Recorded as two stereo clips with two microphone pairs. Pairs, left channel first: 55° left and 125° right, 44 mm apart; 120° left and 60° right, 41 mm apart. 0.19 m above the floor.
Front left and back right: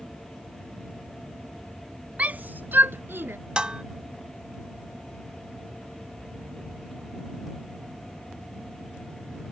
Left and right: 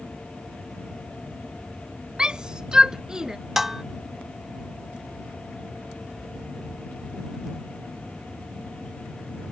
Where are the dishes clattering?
125° right.